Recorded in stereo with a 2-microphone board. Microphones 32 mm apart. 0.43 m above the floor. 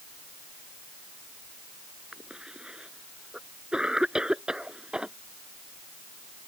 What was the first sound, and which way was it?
A cough, 25° right (ahead or behind).